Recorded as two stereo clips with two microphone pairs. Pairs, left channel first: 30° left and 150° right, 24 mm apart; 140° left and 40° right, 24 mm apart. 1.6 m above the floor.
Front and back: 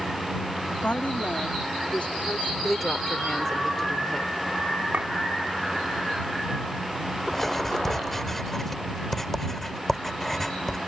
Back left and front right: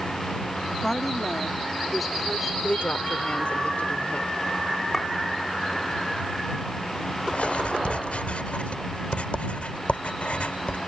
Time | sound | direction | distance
0.8 | a woman speaking | 60° left | ?
2.6 | a woman speaking | 110° left | ?
4.9 | a clink | 150° right | ?
7.3 | writing | 110° left | ?